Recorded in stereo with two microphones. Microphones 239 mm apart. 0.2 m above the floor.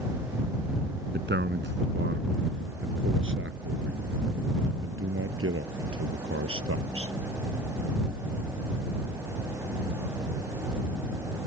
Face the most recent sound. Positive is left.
turn(degrees=-65)  # may be behind; listen again after turning